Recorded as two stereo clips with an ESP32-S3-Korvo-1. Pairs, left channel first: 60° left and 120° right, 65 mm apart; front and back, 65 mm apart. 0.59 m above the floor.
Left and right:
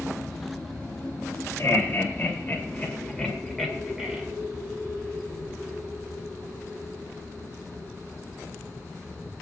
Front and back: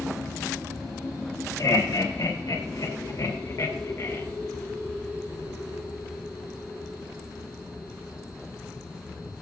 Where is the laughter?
10° left, 3 m; by 4.2 s 45° right, 2 m.